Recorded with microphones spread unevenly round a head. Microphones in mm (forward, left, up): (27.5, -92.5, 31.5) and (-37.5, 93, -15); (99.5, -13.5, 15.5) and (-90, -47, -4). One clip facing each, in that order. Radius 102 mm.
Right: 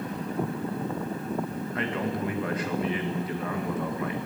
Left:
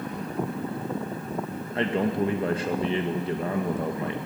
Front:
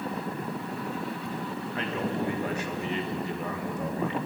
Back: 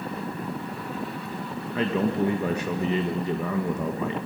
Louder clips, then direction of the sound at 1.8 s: Left 6 dB, back 7 dB; 170° left.